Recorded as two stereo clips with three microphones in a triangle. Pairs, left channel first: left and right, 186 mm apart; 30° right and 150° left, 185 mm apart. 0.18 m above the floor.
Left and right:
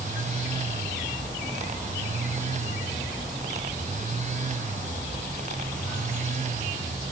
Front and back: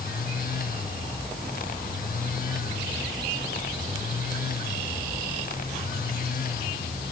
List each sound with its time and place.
Only background noise.